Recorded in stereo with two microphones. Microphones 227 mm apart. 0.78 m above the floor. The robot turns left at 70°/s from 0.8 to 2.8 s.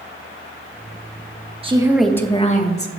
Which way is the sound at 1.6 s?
150° right.